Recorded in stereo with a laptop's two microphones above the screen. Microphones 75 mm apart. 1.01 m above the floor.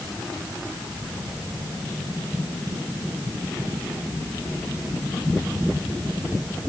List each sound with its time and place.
Only background noise.